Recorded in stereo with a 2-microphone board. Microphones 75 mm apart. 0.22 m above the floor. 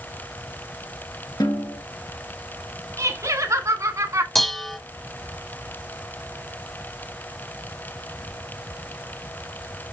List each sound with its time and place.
1.4 s a snare drum: 60° left (ahead or behind), 2.5 m
3.0 s laughter: 40° right (ahead or behind), 1.7 m
4.3 s dishes clattering: 5° left (ahead or behind), 0.8 m